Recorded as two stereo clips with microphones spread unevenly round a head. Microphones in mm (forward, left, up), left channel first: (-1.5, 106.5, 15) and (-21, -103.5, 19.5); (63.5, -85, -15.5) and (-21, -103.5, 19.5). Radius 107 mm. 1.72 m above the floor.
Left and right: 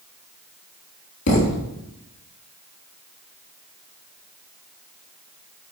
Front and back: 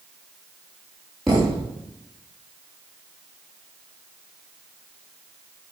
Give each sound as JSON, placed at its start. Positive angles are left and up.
{"t": 1.3, "sound": "a thud", "azimuth_deg": 115, "distance_m": 4.0}